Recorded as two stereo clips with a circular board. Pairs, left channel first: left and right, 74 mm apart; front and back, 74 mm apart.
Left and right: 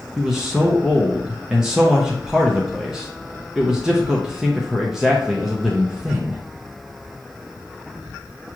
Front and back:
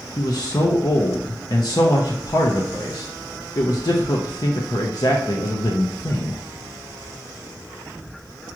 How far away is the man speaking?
About 0.6 m.